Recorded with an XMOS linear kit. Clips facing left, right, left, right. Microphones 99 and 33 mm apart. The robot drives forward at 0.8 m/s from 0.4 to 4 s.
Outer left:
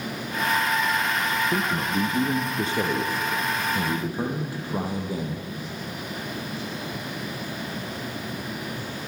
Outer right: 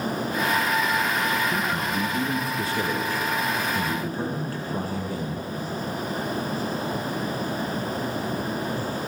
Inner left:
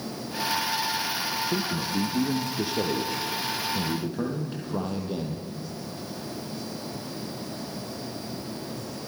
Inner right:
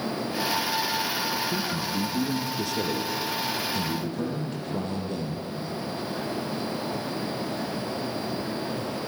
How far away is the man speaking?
About 1.6 m.